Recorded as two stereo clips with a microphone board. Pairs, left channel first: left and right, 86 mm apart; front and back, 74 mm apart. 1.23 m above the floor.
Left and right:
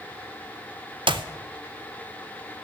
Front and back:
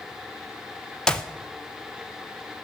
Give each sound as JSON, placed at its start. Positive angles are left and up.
{"t": 1.1, "sound": "a clap", "azimuth_deg": -80, "distance_m": 0.6}